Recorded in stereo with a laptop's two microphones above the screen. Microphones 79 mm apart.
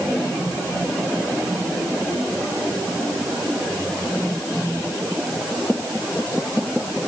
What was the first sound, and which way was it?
Only background noise.